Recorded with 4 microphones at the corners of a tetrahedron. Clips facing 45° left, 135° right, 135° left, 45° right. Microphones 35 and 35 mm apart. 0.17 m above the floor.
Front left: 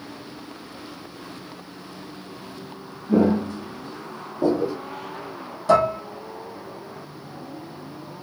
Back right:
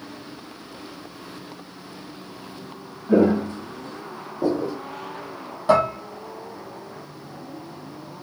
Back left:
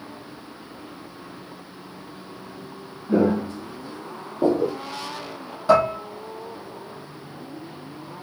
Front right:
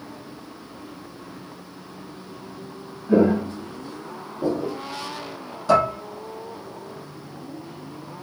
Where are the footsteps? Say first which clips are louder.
Back right 2 dB, front right 2 dB; 120° right, 1.2 m; by 4.8 s 120° left, 0.9 m.